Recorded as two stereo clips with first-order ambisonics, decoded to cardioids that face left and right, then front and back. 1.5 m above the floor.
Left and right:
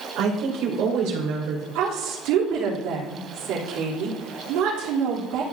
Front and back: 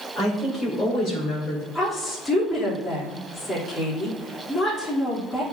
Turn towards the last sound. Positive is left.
turn(degrees=-80)